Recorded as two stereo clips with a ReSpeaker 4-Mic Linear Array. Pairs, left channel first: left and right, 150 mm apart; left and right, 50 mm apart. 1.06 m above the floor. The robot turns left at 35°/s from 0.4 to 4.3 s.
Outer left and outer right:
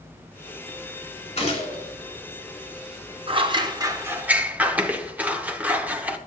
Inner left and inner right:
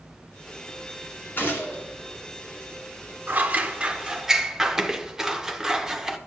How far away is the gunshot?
About 3 m.